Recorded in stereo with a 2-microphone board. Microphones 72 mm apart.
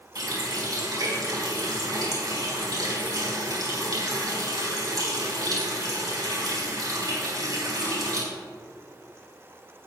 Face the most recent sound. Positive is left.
turn(degrees=-55)  # may be behind; listen again after turning